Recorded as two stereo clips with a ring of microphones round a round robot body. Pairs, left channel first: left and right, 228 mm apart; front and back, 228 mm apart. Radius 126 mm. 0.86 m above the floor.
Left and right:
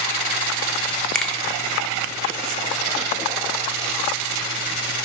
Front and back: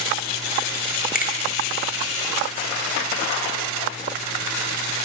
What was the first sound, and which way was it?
A finger snap, 5° left.